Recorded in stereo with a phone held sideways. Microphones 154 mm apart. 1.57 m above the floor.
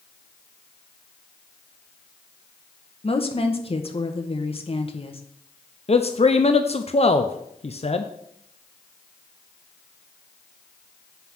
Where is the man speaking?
40° left (ahead or behind), 0.7 m.